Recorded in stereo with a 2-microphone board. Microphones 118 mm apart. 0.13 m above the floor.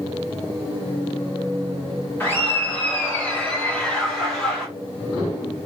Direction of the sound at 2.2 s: 20° left (ahead or behind).